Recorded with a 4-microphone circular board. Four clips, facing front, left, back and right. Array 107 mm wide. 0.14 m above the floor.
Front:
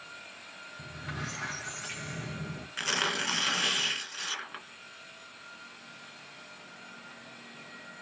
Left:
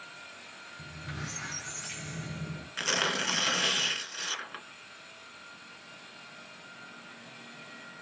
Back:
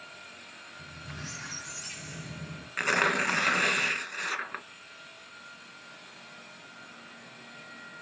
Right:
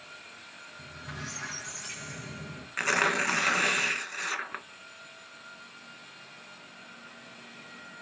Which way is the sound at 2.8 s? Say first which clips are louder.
Right 5 dB, back 6 dB; 140° right.